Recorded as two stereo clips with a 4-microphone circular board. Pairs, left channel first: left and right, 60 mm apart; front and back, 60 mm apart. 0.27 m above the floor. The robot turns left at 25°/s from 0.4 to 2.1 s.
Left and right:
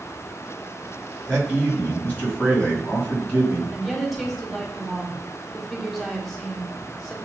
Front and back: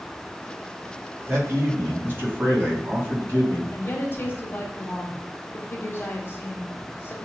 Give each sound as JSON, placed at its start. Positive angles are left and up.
{"t": 1.3, "sound": "a man speaking", "azimuth_deg": 165, "distance_m": 2.0}
{"t": 3.7, "sound": "a woman speaking", "azimuth_deg": -5, "distance_m": 1.2}